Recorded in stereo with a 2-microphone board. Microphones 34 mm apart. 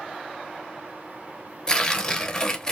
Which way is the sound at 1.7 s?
20° left (ahead or behind).